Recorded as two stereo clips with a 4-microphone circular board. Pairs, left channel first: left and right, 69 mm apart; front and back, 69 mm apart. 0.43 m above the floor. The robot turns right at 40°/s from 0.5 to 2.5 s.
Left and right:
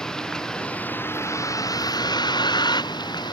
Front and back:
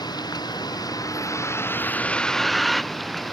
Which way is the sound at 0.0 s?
10° left.